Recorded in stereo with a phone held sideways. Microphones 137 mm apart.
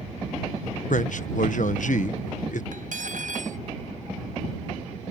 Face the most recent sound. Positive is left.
turn(degrees=-80)